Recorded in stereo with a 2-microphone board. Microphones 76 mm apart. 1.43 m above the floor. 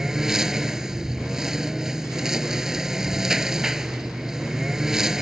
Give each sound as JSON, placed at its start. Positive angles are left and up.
{"t": 0.0, "sound": "a lawn mower", "side_deg": -5}